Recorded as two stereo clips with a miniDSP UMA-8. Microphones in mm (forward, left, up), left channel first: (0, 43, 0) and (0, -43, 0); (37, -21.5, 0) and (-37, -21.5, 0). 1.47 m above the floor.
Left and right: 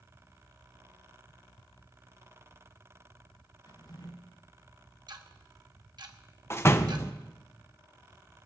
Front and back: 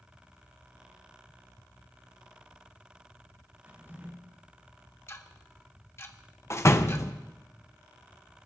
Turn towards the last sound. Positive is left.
turn(degrees=35)